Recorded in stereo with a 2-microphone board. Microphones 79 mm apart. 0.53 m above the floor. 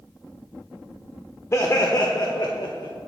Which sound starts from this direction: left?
Laughter, at 1.5 s.